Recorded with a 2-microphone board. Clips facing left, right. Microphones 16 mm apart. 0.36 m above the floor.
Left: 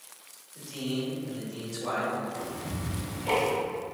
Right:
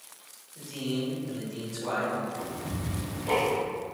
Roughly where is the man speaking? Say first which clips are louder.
Right 1 dB; left.